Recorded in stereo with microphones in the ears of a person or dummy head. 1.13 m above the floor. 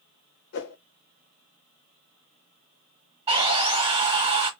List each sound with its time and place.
0.5 s a whoosh: 60° left (ahead or behind), 0.6 m
3.3 s sawing: 30° right (ahead or behind), 0.9 m